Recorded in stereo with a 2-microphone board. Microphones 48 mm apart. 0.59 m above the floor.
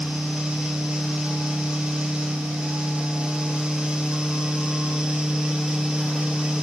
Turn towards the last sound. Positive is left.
No sound to turn to.